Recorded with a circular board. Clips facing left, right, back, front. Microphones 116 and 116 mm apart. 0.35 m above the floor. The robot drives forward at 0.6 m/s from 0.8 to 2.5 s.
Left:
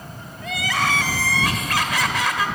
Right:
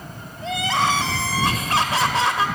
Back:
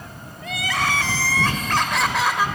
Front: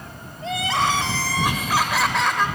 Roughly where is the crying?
Ahead right.